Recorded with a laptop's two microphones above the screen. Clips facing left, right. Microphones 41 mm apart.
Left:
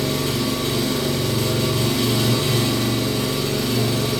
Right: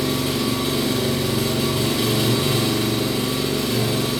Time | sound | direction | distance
0.0 | an engine running | 15° right (ahead or behind) | 1.0 m